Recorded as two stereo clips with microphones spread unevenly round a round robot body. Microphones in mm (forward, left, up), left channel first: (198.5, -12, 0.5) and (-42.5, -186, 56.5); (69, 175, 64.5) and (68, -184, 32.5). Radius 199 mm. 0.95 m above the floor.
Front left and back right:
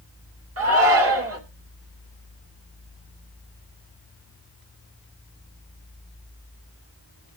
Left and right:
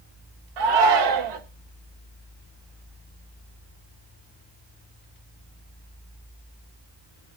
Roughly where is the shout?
Right.